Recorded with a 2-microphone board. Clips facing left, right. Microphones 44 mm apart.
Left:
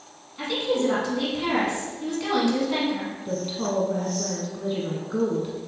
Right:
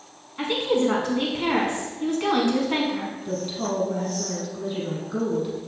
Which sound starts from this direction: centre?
A woman speaking, at 3.2 s.